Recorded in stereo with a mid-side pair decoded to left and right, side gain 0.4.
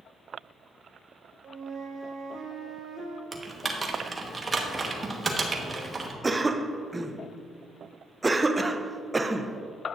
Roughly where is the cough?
Ahead.